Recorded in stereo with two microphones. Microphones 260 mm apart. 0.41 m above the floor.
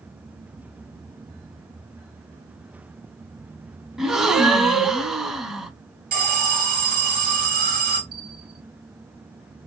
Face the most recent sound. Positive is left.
turn(degrees=65)  # may be behind; listen again after turning